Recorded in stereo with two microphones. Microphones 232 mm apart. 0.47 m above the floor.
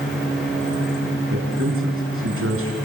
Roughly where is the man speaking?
Right.